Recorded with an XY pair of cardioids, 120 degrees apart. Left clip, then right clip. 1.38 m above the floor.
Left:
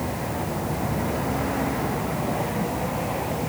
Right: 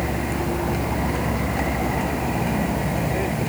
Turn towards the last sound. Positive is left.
turn(degrees=-55)